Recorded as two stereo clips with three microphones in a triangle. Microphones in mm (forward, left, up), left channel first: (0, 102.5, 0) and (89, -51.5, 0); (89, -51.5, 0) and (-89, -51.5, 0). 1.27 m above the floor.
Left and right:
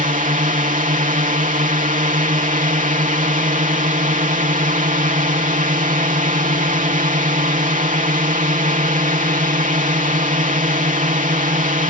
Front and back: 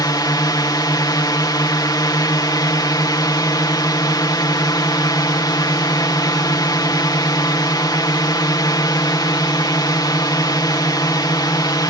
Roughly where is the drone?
Ahead right.